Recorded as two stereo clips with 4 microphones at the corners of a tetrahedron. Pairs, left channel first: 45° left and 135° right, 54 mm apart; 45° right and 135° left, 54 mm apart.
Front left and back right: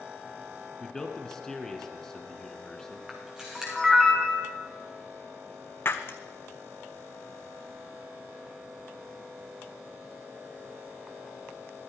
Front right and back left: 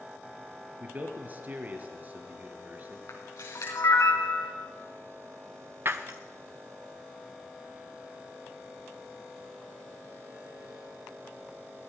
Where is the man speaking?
115° left, 1.5 m.